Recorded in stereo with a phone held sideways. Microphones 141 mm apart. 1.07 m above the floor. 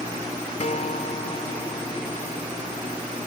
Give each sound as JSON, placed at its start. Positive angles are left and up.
{"t": 0.6, "sound": "a guitar", "side_deg": 50}